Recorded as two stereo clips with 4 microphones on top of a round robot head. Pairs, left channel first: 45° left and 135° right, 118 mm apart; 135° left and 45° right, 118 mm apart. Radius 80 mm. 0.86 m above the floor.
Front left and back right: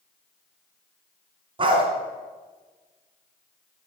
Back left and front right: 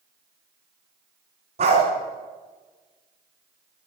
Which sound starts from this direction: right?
A dog barking, at 1.6 s.